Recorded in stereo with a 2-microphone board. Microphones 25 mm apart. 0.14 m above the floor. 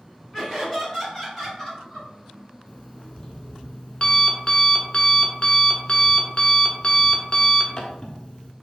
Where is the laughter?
20° right (ahead or behind), 1.7 m; by 2.1 s centre (ahead or behind), 2 m.